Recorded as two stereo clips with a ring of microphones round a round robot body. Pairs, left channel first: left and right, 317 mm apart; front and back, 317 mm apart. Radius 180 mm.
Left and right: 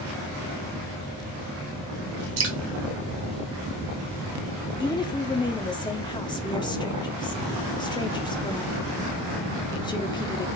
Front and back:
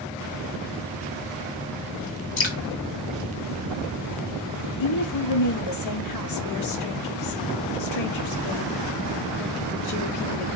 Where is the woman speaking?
15° left, 1.1 m.